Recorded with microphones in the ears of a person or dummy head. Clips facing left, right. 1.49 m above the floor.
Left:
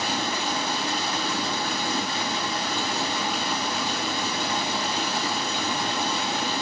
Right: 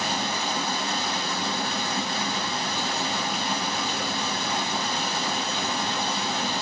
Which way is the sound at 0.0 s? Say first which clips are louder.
Left 1 dB; 60° left (ahead or behind).